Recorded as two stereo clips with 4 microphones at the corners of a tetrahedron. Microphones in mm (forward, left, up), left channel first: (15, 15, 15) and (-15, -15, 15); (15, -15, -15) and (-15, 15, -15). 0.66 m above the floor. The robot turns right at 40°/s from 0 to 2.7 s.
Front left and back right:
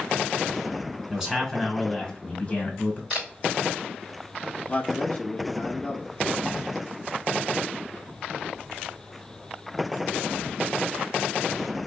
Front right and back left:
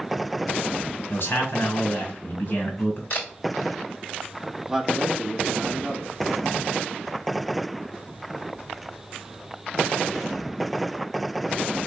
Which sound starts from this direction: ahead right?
A camera shutter, at 3.1 s.